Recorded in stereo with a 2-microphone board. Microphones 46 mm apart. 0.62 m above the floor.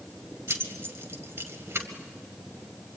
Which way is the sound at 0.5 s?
60° right (ahead or behind).